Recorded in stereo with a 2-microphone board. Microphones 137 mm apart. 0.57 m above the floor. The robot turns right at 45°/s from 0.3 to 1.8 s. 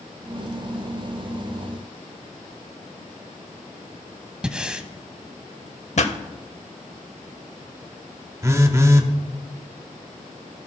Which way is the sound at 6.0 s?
55° left (ahead or behind).